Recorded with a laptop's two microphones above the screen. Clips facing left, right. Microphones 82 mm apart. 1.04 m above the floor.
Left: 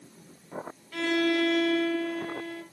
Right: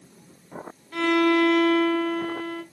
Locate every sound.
0.9 s a violin: 35° right (ahead or behind), 1.4 m